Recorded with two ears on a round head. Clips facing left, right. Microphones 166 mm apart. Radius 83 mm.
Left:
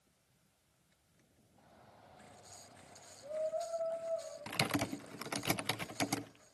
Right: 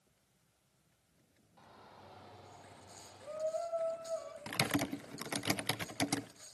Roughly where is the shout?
Right.